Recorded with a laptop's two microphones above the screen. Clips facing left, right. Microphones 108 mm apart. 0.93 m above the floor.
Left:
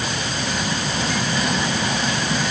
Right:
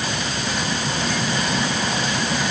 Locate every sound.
Only background noise.